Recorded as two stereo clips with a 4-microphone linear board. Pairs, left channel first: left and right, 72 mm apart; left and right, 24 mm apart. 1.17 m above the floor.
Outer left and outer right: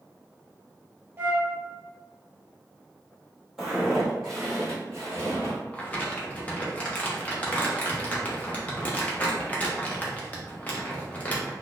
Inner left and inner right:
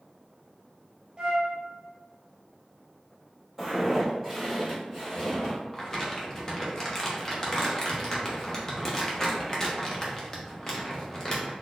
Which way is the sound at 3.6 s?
5° right (ahead or behind).